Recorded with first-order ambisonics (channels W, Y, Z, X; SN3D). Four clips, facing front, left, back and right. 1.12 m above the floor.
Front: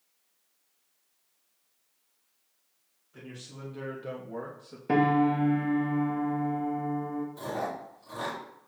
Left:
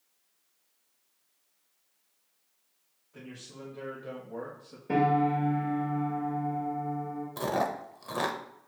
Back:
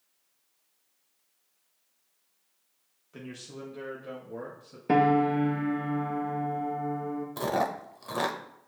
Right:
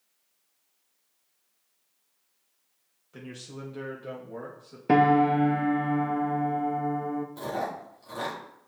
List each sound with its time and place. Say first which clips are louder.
3.1 s a man speaking: right 4 dB, back 3 dB; 135° right, 1.2 m; by 4.8 s 15° left, 1.6 m
4.9 s a piano: right 5 dB, back 1 dB; 100° right, 0.6 m
7.4 s chewing: left 2 dB, back 5 dB; 145° left, 0.6 m